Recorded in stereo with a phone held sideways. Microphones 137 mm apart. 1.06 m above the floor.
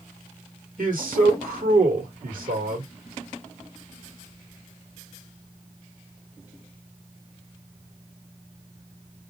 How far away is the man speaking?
About 2.5 m.